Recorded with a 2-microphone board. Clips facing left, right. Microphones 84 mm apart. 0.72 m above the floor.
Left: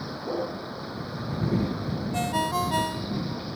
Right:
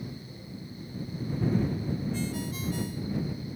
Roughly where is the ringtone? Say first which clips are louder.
Left 8 dB; left.